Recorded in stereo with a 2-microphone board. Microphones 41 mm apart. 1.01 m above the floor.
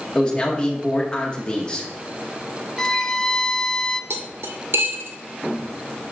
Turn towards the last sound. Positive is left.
turn(degrees=-75)  # may be behind; listen again after turning